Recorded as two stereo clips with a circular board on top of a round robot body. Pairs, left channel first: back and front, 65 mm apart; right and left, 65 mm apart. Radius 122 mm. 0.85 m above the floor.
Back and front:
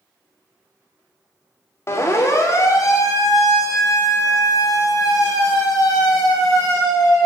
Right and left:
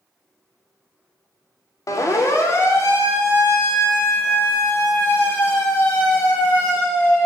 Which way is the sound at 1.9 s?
130° right.